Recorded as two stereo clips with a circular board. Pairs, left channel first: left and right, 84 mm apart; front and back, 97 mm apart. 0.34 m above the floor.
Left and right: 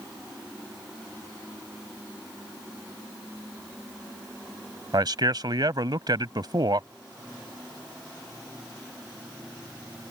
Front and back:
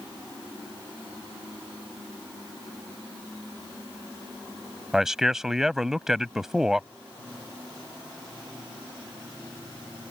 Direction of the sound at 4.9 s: 95° right.